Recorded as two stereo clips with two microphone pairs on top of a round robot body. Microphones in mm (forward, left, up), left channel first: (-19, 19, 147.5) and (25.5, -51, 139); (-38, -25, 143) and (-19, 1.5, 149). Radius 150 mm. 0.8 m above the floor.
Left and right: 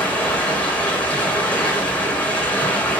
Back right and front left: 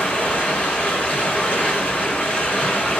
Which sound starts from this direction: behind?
Running water, at 0.0 s.